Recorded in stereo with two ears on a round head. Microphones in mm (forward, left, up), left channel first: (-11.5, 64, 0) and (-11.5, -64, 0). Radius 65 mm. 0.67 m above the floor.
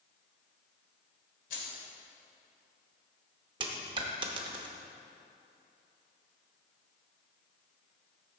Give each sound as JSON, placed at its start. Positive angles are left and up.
{"t": 1.5, "sound": "keys jangling", "side_deg": 75, "distance_m": 2.0}
{"t": 3.6, "sound": "a dropped coin", "side_deg": -35, "distance_m": 0.8}